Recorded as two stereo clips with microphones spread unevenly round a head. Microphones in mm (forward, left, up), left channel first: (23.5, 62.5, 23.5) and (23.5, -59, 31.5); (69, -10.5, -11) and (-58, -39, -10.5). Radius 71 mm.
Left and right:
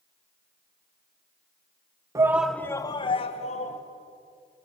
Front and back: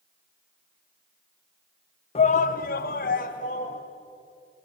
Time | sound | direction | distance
2.1 | a shout | 30° right | 1.1 m